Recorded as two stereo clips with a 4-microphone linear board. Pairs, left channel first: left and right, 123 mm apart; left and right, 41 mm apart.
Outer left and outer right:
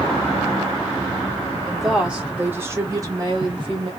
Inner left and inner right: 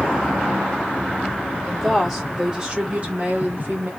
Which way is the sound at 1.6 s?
Centre (ahead or behind).